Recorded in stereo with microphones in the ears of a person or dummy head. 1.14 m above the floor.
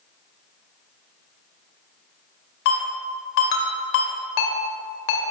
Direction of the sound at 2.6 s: 75° left (ahead or behind).